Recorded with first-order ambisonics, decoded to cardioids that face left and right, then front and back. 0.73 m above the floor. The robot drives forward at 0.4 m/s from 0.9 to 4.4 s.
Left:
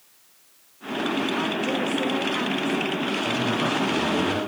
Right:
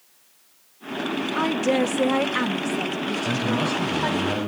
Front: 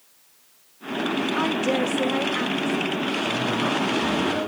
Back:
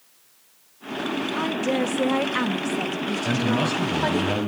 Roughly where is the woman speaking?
Right.